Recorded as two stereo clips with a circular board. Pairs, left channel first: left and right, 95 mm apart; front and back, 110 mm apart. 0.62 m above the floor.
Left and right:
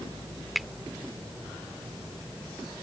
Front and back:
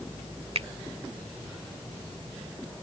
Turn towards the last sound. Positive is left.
turn(degrees=180)